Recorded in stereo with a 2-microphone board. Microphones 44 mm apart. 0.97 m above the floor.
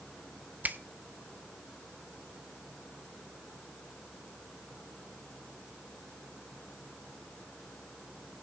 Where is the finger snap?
45° right (ahead or behind), 0.7 m.